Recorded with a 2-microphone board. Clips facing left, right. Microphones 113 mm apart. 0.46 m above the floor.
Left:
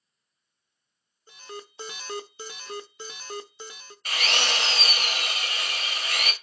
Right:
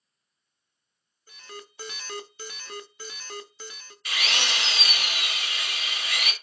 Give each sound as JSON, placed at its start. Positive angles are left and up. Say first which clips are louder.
{"t": 1.3, "sound": "an alarm", "louder": "left 3 dB", "side_deg": 25, "distance_m": 0.5}
{"t": 4.0, "sound": "a drill", "louder": "left 2 dB", "side_deg": 45, "distance_m": 1.1}